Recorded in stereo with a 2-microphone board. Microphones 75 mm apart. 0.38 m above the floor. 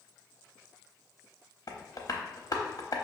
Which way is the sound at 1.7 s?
55° left (ahead or behind).